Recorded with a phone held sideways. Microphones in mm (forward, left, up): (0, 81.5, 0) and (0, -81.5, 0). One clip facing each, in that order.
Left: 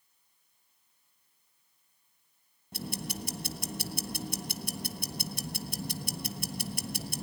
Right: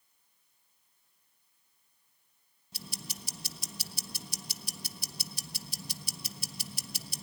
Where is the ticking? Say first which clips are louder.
Left 10 dB; 55° left (ahead or behind), 1.4 m.